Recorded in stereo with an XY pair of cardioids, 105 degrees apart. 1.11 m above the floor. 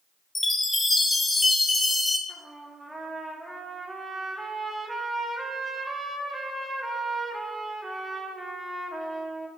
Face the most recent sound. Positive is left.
turn(degrees=-10)